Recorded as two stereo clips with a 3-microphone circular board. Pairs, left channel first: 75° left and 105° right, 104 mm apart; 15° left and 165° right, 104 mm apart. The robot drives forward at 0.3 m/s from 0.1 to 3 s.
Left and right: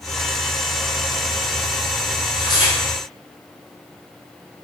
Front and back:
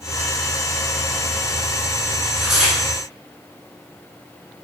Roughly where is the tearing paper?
Left.